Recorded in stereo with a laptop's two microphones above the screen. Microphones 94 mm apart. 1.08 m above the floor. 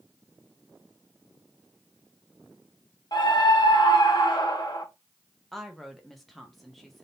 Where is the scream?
50° left (ahead or behind), 1.3 m.